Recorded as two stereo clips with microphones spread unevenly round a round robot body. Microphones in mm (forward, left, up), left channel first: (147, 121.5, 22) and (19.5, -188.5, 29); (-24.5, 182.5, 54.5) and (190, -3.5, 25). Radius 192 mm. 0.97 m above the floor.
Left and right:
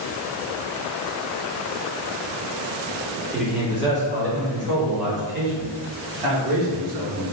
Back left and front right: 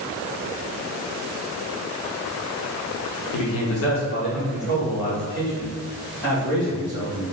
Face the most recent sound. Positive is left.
turn(degrees=-125)